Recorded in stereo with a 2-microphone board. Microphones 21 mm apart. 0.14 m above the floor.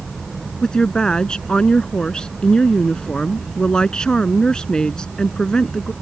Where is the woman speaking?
40° left (ahead or behind).